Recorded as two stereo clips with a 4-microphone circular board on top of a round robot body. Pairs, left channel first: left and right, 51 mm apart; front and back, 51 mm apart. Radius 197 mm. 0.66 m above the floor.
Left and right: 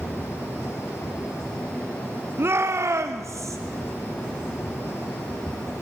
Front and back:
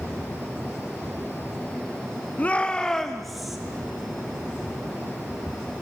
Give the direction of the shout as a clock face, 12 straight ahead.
2 o'clock.